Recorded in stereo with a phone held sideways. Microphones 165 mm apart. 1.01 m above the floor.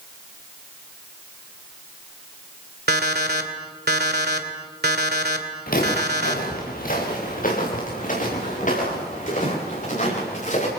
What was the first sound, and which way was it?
An alarm clock, 80° right.